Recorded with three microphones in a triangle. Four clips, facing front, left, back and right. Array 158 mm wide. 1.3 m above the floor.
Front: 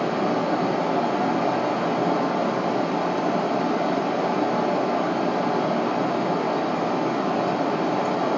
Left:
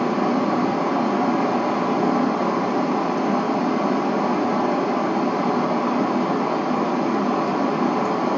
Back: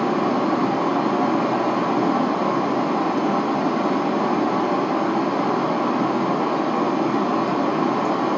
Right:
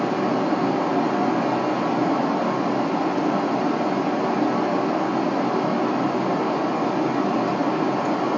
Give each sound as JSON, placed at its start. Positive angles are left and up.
{"t": 0.0, "sound": "running water", "azimuth_deg": 140, "distance_m": 2.0}